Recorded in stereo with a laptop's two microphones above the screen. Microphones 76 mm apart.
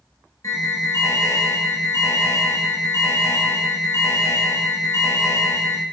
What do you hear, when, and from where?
0.4 s an alarm: 45° left (ahead or behind), 4.5 m